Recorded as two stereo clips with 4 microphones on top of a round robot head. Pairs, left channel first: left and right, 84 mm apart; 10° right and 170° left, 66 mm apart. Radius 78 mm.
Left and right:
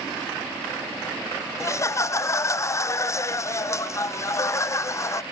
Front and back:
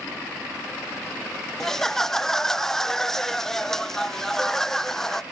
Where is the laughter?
70° left, 0.6 m.